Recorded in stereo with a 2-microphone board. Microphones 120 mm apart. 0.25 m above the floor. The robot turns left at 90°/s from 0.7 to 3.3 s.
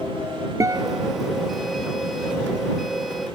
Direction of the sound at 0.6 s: 30° right.